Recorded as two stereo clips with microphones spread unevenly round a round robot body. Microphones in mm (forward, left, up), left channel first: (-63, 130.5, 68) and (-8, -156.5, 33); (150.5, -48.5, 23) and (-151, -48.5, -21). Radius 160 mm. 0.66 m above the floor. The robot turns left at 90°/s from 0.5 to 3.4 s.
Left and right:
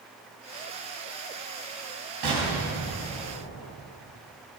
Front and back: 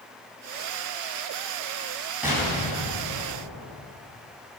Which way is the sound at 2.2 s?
95° right.